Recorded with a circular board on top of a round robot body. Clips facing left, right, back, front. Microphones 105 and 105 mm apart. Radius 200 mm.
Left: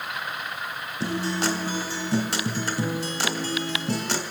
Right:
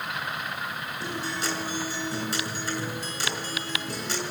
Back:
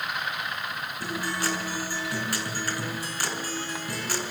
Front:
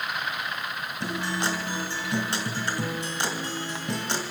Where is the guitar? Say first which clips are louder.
Left 7 dB, front 2 dB; 65° left, 3 m.